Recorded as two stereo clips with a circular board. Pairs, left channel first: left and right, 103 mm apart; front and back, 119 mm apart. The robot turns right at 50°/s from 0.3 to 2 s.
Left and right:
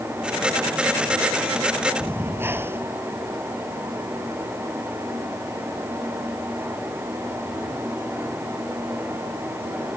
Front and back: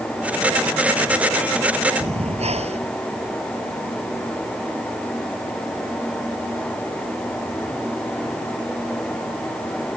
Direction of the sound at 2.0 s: 155° right.